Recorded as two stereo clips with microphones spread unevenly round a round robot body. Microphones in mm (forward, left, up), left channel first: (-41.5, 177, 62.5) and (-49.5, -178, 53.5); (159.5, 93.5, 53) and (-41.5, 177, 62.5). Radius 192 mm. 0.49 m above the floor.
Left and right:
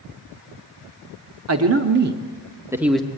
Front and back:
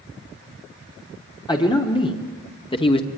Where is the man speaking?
80° right, 1.3 m; by 3.1 s 5° left, 1.1 m.